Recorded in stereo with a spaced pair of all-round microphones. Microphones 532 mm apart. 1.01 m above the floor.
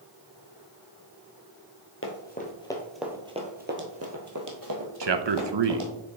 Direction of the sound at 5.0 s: 55° right (ahead or behind).